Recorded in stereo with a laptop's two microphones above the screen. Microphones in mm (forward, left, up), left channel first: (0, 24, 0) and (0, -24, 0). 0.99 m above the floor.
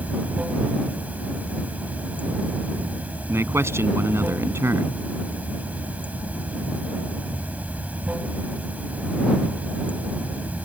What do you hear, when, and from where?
0.0 s running water: 30° right (ahead or behind)
3.3 s a man speaking: 60° right (ahead or behind)